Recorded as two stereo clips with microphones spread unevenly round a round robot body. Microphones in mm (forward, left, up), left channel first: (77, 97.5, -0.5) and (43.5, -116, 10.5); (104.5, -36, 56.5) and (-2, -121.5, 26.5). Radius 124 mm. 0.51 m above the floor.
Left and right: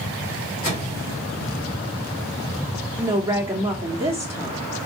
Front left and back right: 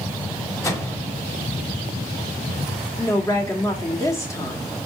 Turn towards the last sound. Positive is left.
turn(degrees=-30)